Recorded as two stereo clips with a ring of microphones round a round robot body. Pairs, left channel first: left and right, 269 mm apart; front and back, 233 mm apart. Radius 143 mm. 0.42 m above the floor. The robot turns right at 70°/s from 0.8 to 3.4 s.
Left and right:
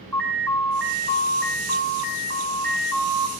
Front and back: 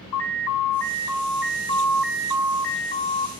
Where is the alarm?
Straight ahead, 3.5 m; by 3.3 s 175° left, 3.5 m.